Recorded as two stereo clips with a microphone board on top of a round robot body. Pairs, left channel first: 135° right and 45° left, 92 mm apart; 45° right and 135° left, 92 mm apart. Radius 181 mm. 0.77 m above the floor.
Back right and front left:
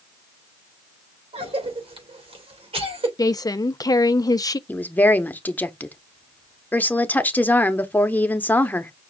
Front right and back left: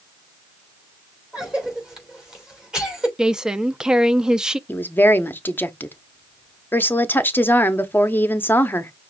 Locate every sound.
1.3 s a cough: 55° left, 2.5 m
3.2 s a woman speaking: 145° right, 0.6 m
4.7 s a woman speaking: 85° right, 1.1 m